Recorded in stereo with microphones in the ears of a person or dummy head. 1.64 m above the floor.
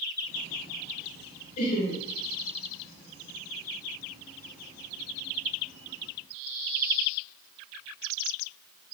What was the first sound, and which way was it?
Laughter, 45° left (ahead or behind).